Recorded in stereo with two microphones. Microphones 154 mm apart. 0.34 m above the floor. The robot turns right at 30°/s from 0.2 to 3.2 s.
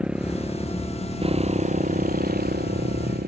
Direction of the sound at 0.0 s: 5° right (ahead or behind).